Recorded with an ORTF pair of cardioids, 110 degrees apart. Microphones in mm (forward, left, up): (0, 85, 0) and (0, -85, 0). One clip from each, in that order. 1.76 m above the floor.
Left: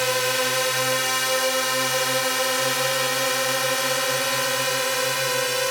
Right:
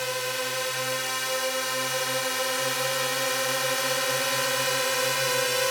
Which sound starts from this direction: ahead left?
A drone, at 0.0 s.